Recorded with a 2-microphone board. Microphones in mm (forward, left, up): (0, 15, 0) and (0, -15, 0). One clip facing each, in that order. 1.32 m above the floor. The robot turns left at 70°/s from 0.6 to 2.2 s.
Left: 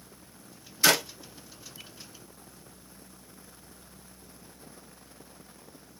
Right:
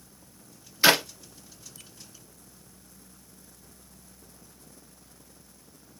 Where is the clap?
25° right (ahead or behind), 0.8 m; by 1.0 s 40° right (ahead or behind), 0.8 m.